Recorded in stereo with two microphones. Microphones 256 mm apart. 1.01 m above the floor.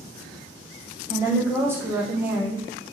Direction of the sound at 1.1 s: 10° right (ahead or behind).